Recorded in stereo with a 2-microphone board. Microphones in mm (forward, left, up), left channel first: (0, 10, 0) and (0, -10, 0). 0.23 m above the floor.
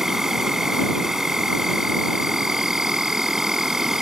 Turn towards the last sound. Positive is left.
turn(degrees=-25)  # may be behind; listen again after turning